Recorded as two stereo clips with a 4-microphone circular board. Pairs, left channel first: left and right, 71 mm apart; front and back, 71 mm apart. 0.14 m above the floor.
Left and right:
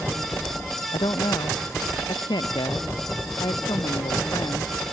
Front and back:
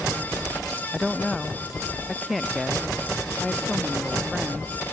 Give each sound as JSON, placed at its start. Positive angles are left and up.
{"t": 0.9, "sound": "a woman speaking", "azimuth_deg": 90}